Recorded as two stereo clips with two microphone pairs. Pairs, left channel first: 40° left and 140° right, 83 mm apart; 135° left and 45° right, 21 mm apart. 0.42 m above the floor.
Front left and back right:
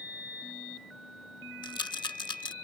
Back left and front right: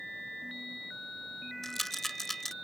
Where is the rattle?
55° left.